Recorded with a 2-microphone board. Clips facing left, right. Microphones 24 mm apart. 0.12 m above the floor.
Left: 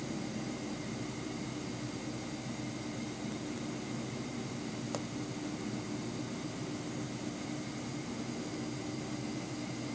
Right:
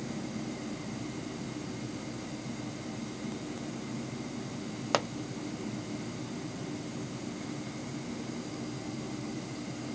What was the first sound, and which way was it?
A pop, 55° right (ahead or behind).